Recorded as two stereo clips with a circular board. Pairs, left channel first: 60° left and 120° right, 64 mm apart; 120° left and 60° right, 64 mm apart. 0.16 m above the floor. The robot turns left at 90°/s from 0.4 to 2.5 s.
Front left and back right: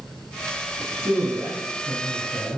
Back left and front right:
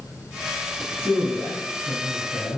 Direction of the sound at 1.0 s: 65° right.